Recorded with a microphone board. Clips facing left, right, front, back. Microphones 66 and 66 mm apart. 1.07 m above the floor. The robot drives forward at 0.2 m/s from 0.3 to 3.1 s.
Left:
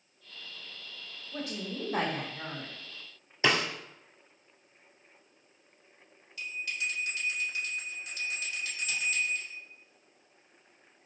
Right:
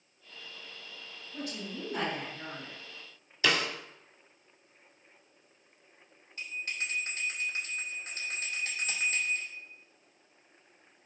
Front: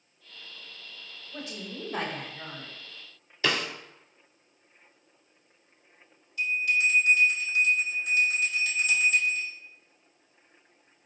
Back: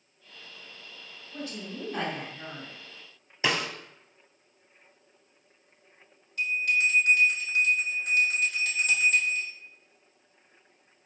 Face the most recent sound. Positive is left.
turn(degrees=-140)